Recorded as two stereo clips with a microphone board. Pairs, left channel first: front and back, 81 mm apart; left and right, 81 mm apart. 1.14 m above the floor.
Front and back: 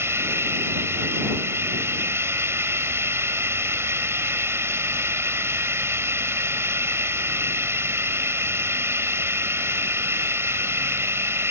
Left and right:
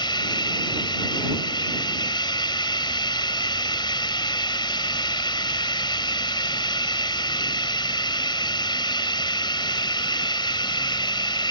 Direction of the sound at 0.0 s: 120° left.